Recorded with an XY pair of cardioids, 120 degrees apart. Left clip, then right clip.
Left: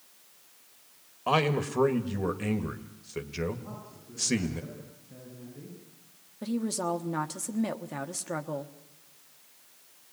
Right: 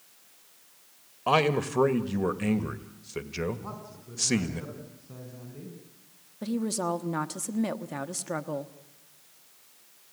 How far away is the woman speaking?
About 1.3 m.